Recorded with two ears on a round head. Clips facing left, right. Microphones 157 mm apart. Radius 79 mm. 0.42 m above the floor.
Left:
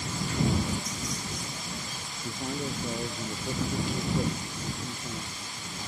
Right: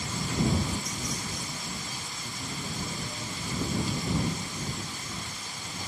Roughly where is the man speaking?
Left.